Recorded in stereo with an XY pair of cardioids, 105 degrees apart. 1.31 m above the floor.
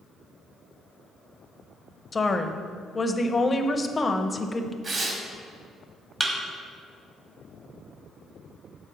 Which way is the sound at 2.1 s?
25° left.